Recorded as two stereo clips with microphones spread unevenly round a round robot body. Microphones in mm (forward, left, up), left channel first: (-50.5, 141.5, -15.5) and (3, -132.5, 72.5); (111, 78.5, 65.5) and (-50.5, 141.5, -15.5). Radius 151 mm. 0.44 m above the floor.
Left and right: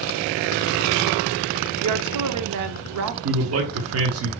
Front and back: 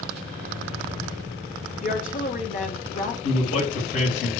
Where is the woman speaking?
85° right, 1.0 m.